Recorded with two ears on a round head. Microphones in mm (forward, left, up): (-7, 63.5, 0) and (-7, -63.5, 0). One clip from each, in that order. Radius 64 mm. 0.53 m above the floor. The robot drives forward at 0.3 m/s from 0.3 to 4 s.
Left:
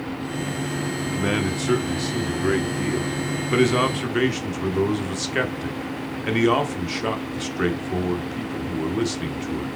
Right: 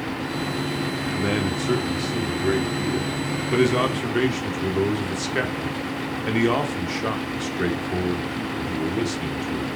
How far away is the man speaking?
About 0.9 m.